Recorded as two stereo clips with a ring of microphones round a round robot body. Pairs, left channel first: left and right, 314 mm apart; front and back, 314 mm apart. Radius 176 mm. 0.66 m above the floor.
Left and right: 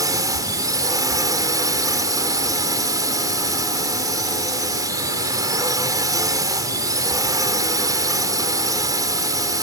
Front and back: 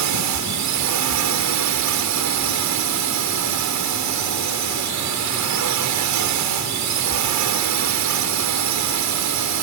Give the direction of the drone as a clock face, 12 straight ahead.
6 o'clock.